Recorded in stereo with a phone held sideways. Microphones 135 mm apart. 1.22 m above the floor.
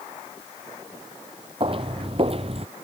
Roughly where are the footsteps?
Right.